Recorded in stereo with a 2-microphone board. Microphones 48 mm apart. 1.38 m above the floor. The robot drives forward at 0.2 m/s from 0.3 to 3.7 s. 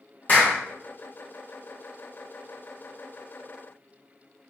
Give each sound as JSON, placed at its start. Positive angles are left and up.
{"t": 0.3, "sound": "a clap", "side_deg": 40, "distance_m": 1.2}